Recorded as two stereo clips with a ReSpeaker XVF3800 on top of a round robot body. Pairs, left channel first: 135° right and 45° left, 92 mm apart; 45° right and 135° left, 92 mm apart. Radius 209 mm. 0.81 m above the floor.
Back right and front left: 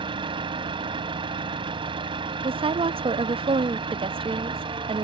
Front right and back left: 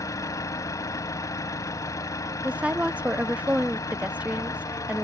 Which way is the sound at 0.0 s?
10° left.